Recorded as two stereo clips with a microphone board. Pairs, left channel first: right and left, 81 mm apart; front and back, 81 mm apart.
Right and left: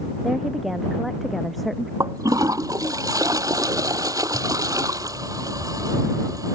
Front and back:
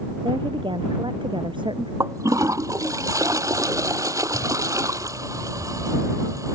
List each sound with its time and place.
0.2 s a woman speaking: straight behind; by 1.9 s 175° right
2.0 s a toilet flushing: 135° left